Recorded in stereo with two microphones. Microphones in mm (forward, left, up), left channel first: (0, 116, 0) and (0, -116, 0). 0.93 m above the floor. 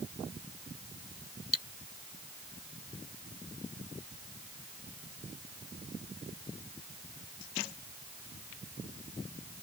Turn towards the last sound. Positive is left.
turn(degrees=80)